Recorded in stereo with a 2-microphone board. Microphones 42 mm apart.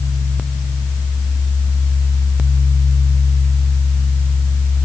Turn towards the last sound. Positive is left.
No sound to turn to.